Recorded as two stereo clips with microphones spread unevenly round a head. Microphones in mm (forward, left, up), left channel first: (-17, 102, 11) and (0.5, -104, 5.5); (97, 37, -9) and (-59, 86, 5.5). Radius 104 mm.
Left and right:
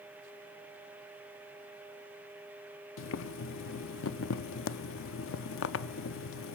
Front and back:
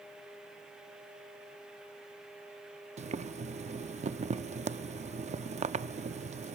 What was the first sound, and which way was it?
Boiling, 115° left.